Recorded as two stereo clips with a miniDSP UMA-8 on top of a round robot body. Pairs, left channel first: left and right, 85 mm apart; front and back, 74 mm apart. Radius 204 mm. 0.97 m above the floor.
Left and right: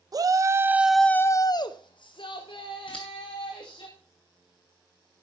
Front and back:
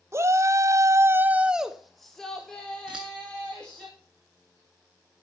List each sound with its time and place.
0.1 s a shout: 130° right, 1.0 m; by 3.9 s 75° left, 2.5 m
2.9 s scissors: 100° left, 0.5 m